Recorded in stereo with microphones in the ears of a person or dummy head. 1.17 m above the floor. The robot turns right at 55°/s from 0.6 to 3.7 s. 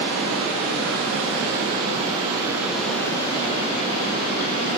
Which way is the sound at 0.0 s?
125° right.